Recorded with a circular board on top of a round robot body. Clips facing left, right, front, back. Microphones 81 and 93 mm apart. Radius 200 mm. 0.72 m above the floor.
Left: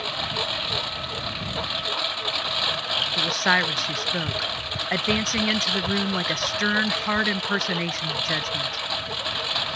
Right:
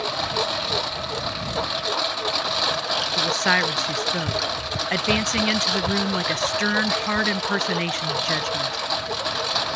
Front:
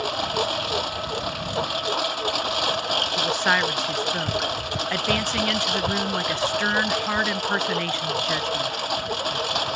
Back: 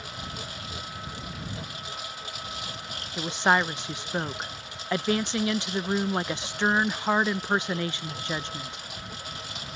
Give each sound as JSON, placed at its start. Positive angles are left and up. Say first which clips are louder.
{"t": 0.0, "sound": "a lawn mower", "louder": "right 5 dB, front 14 dB", "azimuth_deg": -15}
{"t": 3.2, "sound": "a woman speaking", "louder": "even, back 1 dB", "azimuth_deg": 155}